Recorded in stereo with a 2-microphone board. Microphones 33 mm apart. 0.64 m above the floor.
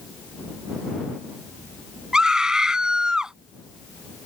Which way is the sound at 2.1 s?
20° right (ahead or behind).